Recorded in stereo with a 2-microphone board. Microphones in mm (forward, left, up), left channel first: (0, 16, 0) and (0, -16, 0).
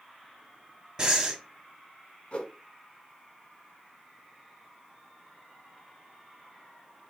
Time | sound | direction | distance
1.0 | breathing | 25° right (ahead or behind) | 1.0 m
2.3 | a whoosh | 40° left (ahead or behind) | 0.7 m